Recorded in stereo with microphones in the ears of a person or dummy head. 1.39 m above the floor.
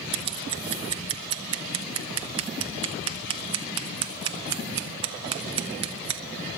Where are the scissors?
25° right (ahead or behind), 0.6 m.